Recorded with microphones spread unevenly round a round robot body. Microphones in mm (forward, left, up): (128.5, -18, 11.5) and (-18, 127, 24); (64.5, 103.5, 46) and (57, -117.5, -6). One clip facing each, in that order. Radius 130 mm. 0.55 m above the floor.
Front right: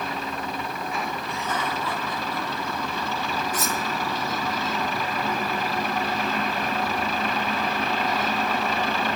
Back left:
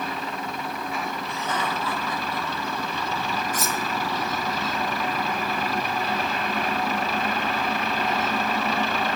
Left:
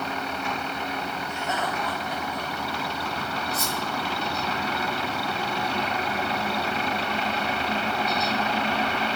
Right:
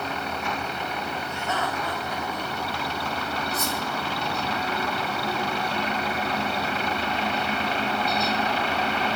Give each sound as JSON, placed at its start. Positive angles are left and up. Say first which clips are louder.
{"t": 1.3, "sound": "laughter", "louder": "back left 1 dB, even", "azimuth_deg": 170, "distance_m": 3.5}
{"t": 3.5, "sound": "cutlery clinking", "louder": "front right 1 dB, right 1 dB", "azimuth_deg": 130, "distance_m": 1.5}